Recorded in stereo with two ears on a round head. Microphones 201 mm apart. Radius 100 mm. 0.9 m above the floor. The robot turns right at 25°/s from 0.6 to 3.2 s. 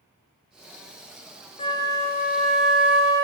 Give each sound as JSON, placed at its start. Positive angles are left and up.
{"t": 1.6, "sound": "a flute", "azimuth_deg": 155, "distance_m": 0.5}